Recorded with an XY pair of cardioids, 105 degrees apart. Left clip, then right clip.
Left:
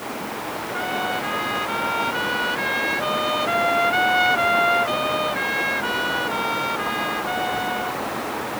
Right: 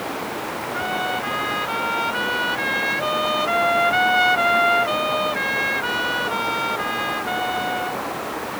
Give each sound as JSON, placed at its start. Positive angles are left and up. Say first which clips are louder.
{"t": 0.7, "sound": "a trumpet", "louder": "right 1 dB", "azimuth_deg": -10}